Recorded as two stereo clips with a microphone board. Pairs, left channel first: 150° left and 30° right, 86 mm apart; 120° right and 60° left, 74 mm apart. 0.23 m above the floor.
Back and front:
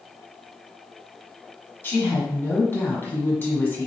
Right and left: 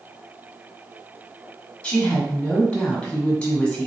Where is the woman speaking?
Straight behind, 1.4 m.